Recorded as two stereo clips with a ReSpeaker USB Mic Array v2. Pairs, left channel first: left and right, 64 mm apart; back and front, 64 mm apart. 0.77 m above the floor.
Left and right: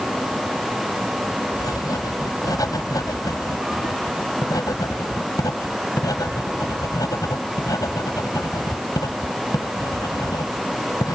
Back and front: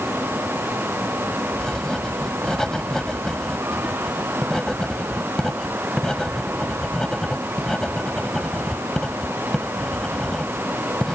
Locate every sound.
1.6 s writing: 100° left